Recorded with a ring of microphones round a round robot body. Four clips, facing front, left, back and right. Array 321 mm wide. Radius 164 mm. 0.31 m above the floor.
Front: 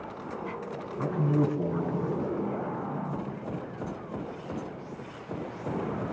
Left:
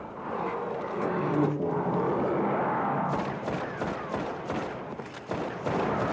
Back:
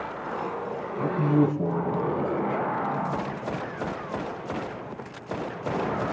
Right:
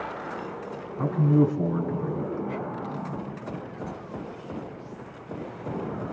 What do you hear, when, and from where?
1.0 s a man speaking: 75° right, 5 m